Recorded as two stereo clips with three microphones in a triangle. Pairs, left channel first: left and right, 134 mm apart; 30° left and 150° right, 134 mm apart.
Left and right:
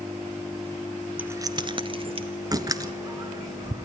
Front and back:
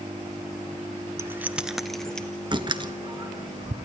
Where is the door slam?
130° right, 1.2 m.